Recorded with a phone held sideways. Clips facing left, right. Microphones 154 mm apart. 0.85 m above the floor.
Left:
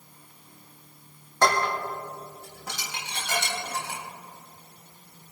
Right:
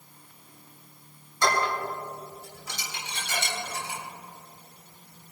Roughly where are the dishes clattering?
Left.